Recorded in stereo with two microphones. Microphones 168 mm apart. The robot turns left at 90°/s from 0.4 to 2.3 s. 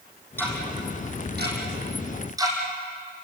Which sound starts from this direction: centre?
Ticking, at 0.4 s.